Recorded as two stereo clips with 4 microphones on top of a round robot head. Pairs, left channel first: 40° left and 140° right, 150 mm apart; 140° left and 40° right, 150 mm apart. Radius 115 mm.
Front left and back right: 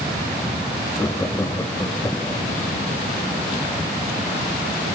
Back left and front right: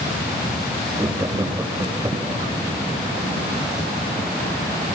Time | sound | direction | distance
1.0 | laughter | straight ahead | 1.4 m